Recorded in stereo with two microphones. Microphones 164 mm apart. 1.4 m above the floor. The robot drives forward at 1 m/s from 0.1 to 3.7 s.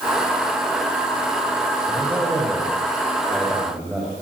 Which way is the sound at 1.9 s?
5° right (ahead or behind).